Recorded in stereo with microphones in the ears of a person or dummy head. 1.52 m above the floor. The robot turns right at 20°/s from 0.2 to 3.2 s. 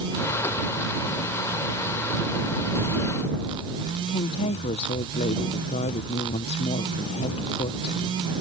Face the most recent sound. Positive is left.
turn(degrees=30)  # may be behind; listen again after turning